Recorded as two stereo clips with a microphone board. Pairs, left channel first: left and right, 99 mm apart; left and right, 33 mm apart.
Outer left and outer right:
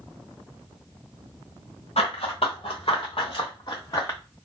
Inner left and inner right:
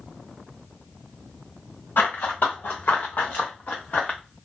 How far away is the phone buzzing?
I don't hear a phone buzzing.